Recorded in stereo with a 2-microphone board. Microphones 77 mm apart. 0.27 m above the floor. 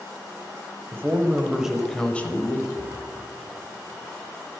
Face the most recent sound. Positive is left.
turn(degrees=65)  # may be behind; listen again after turning